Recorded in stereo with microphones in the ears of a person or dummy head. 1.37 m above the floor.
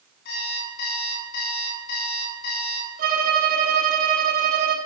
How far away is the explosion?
I don't hear an explosion.